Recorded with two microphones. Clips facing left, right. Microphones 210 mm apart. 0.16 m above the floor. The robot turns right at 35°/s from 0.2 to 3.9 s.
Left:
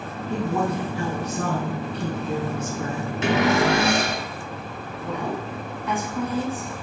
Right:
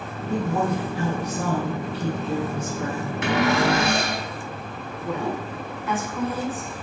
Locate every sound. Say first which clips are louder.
0.3 s a woman speaking: right 1 dB; 65° right, 1.3 m; by 3.1 s 30° left, 1.3 m
3.2 s a cupboard door: left 1 dB; 25° left (ahead or behind), 1.6 m; by 4.2 s 15° left (ahead or behind), 1.6 m
5.0 s a woman speaking: right 1 dB; centre (ahead or behind), 1.2 m